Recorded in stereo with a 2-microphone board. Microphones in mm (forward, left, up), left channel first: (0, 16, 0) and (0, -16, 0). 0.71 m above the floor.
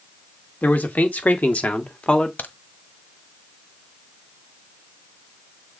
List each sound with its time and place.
0.6 s a man speaking: 65° left (ahead or behind), 2 m; by 2.3 s 35° left (ahead or behind), 1.4 m
2.4 s a crack: 75° left (ahead or behind), 1.3 m